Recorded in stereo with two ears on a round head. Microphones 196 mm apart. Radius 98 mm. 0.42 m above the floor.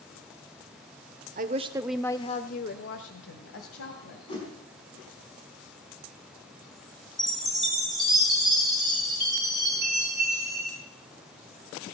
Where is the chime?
Centre (ahead or behind), 4.5 m.